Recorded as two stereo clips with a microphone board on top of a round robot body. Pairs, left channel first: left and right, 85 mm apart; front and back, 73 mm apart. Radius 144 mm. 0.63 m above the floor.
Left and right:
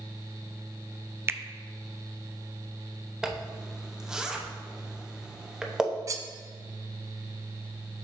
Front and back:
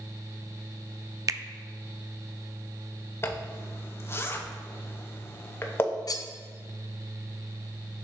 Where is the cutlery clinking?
40° right, 0.6 m.